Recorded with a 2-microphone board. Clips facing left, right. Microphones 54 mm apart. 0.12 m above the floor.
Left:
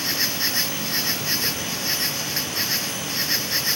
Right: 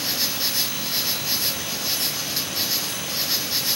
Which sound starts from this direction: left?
An insect, at 0.0 s.